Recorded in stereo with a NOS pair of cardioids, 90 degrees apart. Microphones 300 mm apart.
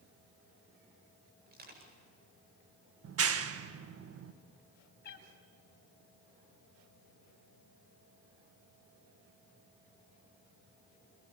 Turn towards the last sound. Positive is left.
turn(degrees=35)